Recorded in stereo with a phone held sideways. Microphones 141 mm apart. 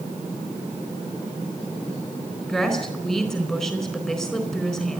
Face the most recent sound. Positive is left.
turn(degrees=5)  # may be behind; listen again after turning